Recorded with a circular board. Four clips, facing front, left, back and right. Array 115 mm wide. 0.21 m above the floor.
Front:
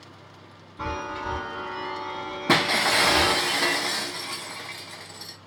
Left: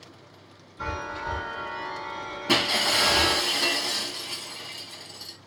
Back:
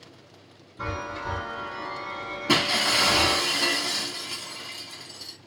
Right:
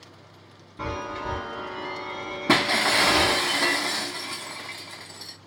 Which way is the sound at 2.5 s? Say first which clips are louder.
Right 4 dB, front 3 dB; 55° right.